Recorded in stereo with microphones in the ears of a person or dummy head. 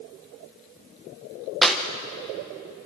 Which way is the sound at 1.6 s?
Centre (ahead or behind).